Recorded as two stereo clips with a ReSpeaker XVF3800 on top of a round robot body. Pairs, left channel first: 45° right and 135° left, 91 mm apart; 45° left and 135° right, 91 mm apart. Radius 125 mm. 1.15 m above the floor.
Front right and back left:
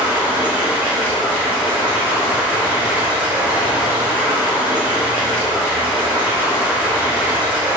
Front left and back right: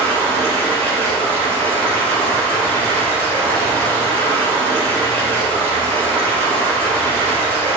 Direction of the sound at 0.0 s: 150° right.